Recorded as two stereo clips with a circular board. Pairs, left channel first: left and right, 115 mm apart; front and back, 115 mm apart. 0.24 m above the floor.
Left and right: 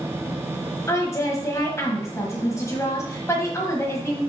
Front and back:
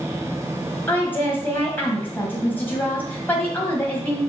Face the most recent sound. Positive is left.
turn(degrees=55)